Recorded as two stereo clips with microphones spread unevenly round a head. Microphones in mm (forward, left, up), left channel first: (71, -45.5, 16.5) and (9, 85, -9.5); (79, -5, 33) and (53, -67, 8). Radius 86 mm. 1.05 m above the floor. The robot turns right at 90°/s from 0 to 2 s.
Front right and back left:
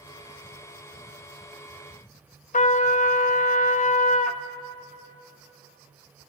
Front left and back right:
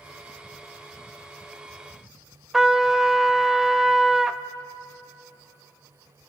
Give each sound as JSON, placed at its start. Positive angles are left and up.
{"t": 2.5, "sound": "a trumpet", "azimuth_deg": -30, "distance_m": 0.9}